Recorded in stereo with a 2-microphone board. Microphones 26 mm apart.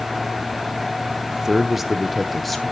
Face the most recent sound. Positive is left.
turn(degrees=5)  # may be behind; listen again after turning